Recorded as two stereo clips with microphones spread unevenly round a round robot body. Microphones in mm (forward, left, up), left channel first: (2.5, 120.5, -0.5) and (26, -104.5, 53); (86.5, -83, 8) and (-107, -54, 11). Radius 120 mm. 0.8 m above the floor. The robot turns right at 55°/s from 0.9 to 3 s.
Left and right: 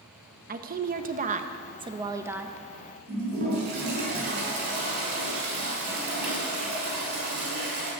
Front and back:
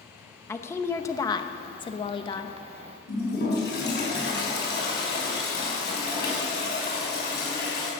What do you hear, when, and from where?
0.5 s a woman speaking: 65° right, 0.8 m; by 2.5 s 25° left, 0.8 m
3.1 s a toilet flushing: 40° right, 6 m